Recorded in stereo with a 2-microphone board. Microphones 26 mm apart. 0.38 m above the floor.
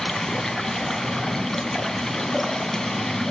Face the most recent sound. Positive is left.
turn(degrees=10)  # may be behind; listen again after turning